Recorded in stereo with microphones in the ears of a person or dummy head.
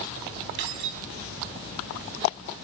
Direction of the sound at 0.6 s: 65° right (ahead or behind).